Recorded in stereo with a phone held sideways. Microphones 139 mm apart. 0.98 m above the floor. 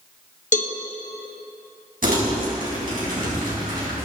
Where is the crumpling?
85° right, 4.5 m.